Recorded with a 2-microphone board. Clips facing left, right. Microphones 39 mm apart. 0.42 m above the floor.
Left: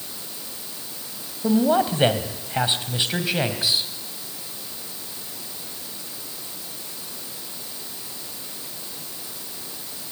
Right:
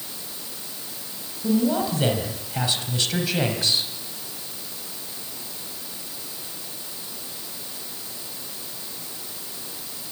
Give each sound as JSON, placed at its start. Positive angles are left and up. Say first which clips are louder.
{"t": 1.4, "sound": "a man speaking", "louder": "left 3 dB", "side_deg": 45, "distance_m": 3.0}